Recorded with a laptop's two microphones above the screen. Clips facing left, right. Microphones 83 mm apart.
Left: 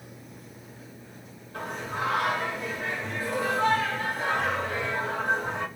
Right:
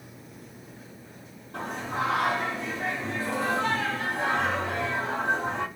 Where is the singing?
75° right (ahead or behind), 1.4 m.